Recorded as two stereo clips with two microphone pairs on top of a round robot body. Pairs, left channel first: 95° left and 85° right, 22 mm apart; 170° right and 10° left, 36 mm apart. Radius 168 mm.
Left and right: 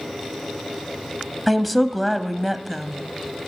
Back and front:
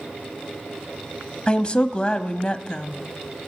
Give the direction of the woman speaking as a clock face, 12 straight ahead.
6 o'clock.